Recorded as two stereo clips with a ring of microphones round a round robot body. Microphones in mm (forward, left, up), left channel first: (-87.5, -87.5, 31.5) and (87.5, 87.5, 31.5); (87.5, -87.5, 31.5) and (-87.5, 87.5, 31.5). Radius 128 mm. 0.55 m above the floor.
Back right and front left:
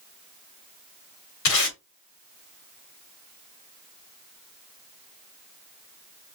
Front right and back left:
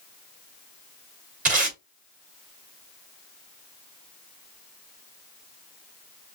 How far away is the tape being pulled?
About 1.9 m.